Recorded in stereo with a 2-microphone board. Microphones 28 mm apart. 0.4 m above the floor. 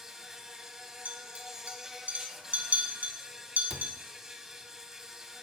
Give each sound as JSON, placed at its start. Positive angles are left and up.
{"t": 0.0, "sound": "an insect", "side_deg": -25, "distance_m": 1.2}
{"t": 1.1, "sound": "a clink", "side_deg": -80, "distance_m": 1.9}
{"t": 3.7, "sound": "a cupboard door", "side_deg": -20, "distance_m": 0.7}